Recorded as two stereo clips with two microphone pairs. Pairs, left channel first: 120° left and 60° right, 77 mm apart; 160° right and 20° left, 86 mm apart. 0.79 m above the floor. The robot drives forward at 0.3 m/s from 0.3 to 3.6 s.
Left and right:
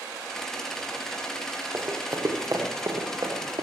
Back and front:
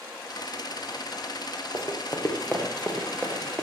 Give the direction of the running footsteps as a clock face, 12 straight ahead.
4 o'clock.